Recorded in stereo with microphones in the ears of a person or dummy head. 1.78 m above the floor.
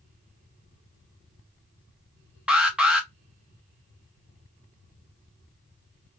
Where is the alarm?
5° right (ahead or behind), 0.5 m.